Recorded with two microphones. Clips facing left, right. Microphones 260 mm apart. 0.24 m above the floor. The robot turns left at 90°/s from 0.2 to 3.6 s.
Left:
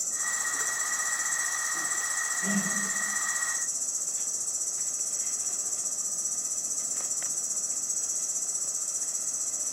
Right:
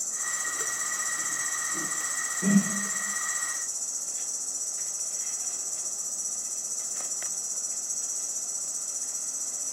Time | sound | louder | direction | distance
0.0 | an insect | even | 40° left | 4 m
2.4 | a whoosh | right 8 dB | 70° right (ahead or behind) | 1.8 m